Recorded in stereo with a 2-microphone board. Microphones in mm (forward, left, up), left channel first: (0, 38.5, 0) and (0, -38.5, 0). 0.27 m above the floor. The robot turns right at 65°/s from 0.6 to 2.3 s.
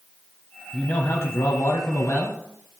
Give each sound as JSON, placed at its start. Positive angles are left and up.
{"t": 0.7, "sound": "a man speaking", "azimuth_deg": 25, "distance_m": 1.3}